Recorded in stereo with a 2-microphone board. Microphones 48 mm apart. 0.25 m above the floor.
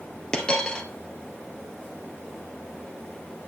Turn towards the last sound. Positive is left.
turn(degrees=15)  # may be behind; listen again after turning